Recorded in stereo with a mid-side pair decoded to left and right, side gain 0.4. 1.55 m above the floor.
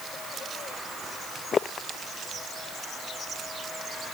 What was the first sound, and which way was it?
Only background noise.